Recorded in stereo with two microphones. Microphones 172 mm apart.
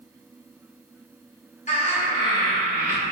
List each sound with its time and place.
1.7 s laughter: 45° left (ahead or behind), 1.2 m; by 3.0 s 20° right (ahead or behind), 1.0 m